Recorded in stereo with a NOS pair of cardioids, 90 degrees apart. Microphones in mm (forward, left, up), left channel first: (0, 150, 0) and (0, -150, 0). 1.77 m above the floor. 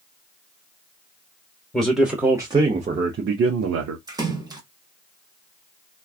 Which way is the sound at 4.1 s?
15° right.